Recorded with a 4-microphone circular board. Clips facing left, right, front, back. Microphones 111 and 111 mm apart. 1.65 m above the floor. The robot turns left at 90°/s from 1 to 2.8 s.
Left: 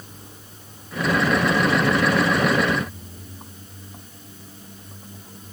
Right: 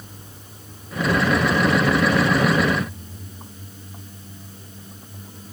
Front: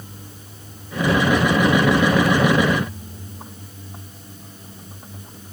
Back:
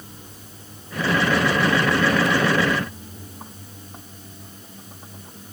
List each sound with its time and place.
Only background noise.